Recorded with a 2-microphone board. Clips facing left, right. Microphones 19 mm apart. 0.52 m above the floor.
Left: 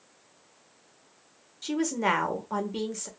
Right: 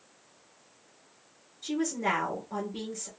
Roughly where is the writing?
No writing in this recording.